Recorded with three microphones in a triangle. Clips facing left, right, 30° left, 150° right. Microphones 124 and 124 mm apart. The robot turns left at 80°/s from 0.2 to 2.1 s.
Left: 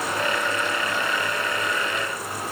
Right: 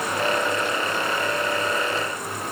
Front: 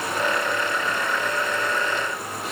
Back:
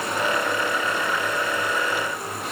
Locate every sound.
Only background noise.